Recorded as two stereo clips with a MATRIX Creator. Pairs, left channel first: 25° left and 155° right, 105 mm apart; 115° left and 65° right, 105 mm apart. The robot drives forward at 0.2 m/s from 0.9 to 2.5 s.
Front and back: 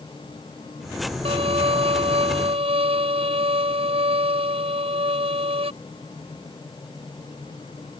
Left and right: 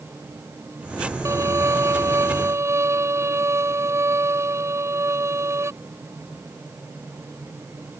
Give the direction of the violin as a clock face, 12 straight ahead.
4 o'clock.